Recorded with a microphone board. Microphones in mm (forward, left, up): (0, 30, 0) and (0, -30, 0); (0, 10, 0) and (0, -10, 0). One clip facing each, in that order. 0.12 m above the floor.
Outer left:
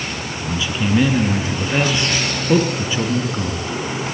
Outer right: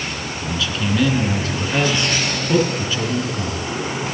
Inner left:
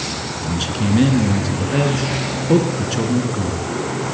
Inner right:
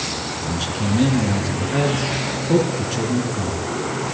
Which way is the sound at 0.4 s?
20° left (ahead or behind).